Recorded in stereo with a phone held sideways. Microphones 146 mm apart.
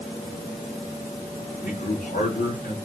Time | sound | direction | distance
1.6 | a man speaking | 75° left (ahead or behind) | 3 m